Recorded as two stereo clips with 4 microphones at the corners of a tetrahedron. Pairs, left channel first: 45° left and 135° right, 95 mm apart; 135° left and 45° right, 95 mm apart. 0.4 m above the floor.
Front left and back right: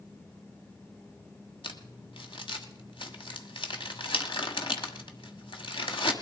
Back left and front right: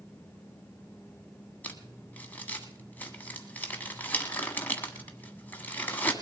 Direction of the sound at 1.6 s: 65° left.